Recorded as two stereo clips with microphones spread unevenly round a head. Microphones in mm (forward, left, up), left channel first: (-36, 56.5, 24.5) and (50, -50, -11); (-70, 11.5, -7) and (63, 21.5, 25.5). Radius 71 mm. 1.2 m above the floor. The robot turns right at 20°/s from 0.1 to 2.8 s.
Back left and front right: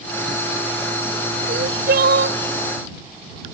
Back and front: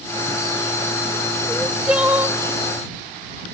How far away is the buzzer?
I don't hear a buzzer.